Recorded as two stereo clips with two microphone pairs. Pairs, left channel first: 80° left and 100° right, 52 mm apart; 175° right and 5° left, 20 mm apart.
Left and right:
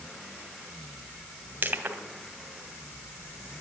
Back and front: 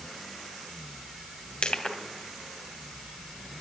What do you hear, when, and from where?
1.6 s crushing: 150° right, 2 m